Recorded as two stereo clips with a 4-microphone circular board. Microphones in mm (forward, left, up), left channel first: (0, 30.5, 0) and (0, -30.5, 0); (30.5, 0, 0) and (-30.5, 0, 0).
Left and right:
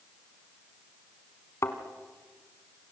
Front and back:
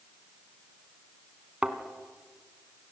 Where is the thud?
115° left, 2 m.